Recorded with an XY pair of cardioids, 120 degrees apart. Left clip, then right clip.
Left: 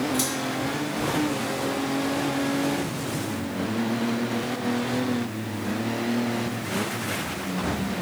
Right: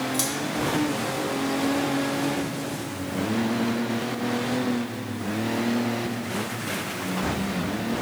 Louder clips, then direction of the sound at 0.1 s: Left 1 dB; 25° right.